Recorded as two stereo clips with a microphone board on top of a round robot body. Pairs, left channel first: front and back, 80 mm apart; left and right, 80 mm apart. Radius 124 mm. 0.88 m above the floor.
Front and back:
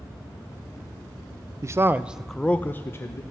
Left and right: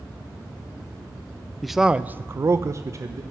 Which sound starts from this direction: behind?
A man speaking, at 1.6 s.